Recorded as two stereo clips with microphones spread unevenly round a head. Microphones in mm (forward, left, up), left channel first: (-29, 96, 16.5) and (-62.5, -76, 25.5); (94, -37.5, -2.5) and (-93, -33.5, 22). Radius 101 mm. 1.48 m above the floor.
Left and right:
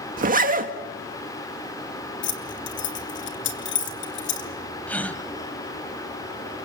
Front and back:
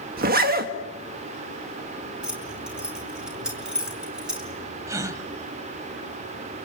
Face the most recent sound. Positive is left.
turn(degrees=155)